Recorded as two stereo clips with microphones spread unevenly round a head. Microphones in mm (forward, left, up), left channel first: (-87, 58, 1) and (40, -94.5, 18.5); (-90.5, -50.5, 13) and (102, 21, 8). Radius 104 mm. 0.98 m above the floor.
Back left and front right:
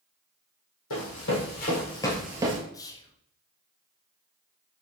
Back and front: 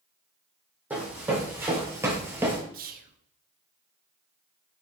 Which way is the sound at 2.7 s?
60° left.